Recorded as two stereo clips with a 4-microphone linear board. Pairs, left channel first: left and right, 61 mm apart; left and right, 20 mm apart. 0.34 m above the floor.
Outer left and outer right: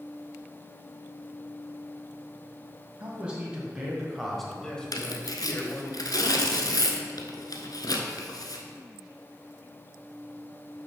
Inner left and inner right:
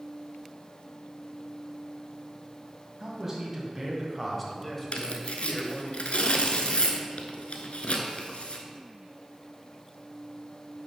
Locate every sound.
3.0 s a man speaking: 20° right (ahead or behind), 1.8 m; by 5.9 s 40° left (ahead or behind), 1.3 m
4.9 s tearing paper: 80° left, 0.8 m